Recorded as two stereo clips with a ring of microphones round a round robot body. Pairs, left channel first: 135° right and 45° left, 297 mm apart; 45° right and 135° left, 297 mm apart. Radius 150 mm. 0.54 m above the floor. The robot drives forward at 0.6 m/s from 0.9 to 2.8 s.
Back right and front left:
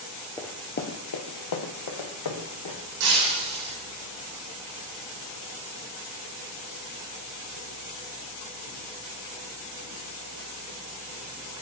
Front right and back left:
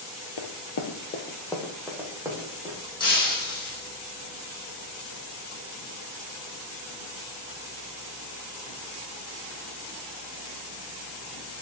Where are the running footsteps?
55° right, 0.9 m; by 2.8 s 150° right, 3 m.